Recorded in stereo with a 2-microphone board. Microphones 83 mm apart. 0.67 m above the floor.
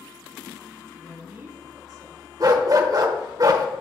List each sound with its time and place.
1.0 s a woman speaking: 5° left (ahead or behind), 1.1 m; by 2.3 s 55° right (ahead or behind), 1.6 m
2.4 s a dog barking: 45° right (ahead or behind), 0.8 m